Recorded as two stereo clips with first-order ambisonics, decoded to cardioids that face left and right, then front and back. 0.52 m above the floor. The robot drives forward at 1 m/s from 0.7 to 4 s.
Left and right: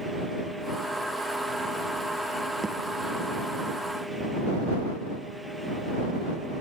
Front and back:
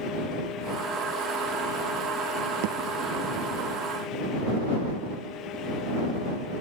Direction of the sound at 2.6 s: 170° right.